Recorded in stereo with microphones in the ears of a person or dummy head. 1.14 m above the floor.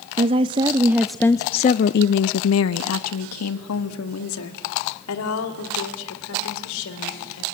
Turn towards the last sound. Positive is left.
turn(degrees=80)